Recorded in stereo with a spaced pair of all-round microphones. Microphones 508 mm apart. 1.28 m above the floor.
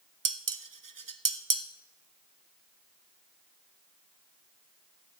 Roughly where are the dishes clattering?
Right.